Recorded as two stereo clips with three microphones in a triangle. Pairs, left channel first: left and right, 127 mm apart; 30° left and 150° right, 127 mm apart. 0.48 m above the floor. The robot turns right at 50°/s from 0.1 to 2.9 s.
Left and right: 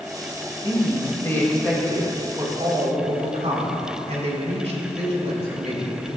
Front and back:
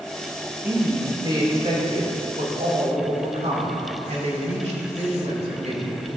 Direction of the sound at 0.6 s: 125° left.